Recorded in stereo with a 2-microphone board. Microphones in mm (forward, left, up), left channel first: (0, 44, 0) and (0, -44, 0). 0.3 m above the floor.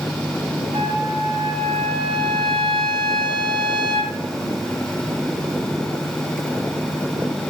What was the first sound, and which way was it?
A trumpet, 70° right (ahead or behind).